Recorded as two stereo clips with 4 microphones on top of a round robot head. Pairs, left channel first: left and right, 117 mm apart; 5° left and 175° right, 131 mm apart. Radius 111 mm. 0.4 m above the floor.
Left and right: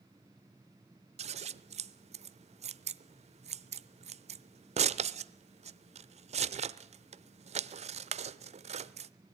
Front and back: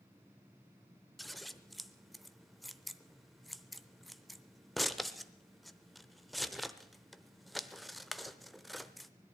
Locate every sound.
1.2 s scissors: 85° right, 0.7 m